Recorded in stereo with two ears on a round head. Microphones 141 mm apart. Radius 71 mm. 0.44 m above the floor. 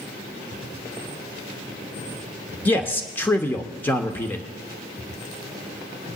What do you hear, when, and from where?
2.6 s a man speaking: 10° left (ahead or behind), 0.9 m